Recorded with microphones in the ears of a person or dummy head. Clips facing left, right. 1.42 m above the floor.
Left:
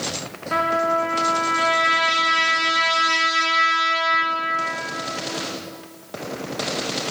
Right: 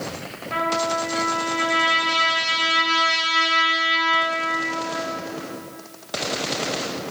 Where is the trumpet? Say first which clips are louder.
Left 3 dB; 80° left, 1.2 m.